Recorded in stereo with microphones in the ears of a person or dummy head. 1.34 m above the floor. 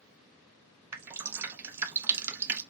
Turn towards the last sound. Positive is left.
turn(degrees=-10)  # may be behind; listen again after turning